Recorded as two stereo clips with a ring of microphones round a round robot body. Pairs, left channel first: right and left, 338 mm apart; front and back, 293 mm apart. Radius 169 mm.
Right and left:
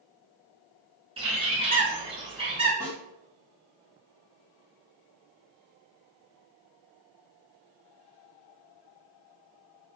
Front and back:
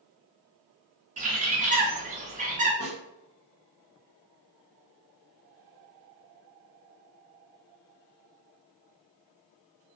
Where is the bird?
145° left, 0.7 m.